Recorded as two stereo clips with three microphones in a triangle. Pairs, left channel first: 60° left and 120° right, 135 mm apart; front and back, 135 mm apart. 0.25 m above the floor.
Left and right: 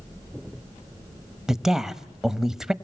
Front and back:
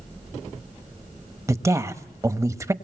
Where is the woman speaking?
160° left, 1.0 m.